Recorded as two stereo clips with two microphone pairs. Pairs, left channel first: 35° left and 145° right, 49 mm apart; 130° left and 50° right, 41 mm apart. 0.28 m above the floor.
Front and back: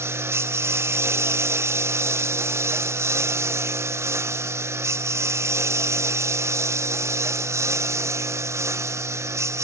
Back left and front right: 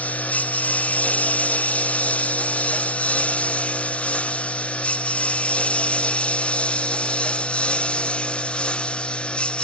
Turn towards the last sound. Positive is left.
turn(degrees=-170)